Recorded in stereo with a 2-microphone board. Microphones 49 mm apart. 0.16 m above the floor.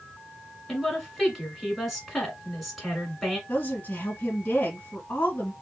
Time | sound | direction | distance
0.7 | a woman speaking | centre (ahead or behind) | 1.6 m
3.5 | a woman speaking | 35° left (ahead or behind) | 1.3 m